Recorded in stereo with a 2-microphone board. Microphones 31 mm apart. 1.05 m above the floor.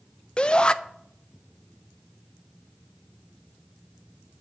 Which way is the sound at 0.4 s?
30° left (ahead or behind).